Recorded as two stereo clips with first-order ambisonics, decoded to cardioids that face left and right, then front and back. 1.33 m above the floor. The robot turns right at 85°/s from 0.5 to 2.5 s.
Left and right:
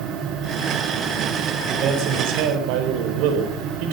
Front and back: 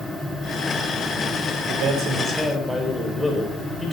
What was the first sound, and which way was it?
A man speaking, 155° right.